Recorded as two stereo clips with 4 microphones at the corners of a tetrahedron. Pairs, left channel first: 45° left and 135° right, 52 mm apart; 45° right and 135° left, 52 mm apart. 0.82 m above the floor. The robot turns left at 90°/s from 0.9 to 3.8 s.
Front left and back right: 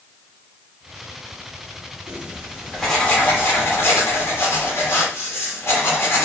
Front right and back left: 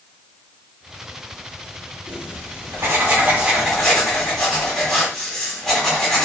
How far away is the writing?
About 1.7 m.